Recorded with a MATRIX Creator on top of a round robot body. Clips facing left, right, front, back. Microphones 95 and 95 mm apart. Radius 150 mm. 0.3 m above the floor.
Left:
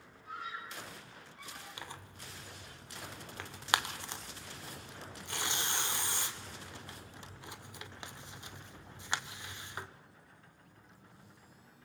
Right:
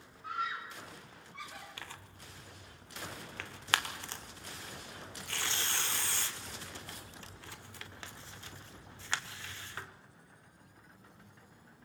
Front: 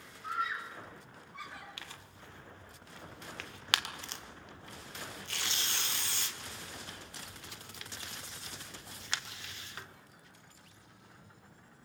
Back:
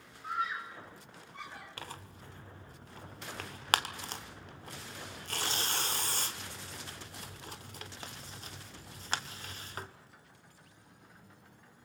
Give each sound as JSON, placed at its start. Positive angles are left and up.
{"t": 0.2, "sound": "a scream", "azimuth_deg": -95, "distance_m": 5.5}
{"t": 1.8, "sound": "tearing paper", "azimuth_deg": 155, "distance_m": 1.7}